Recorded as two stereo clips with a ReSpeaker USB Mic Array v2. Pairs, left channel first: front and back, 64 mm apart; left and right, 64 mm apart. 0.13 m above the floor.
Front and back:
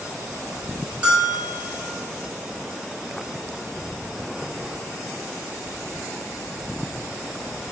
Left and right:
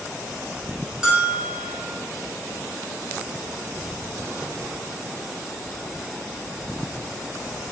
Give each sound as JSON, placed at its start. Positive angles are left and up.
{"t": 1.0, "sound": "a bell", "azimuth_deg": -140, "distance_m": 1.1}